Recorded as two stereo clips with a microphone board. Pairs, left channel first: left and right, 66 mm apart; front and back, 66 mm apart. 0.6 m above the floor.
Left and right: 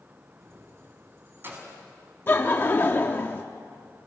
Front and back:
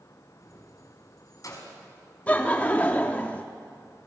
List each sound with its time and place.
0.4 s keys jangling: 40° right, 4.5 m; by 1.7 s 30° right, 4 m
2.3 s laughter: 50° left, 0.8 m